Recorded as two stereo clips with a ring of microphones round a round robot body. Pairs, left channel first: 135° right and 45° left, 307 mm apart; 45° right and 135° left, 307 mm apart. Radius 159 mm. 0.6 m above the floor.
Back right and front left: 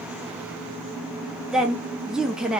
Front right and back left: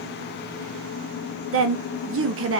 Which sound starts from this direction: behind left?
A woman speaking, at 1.5 s.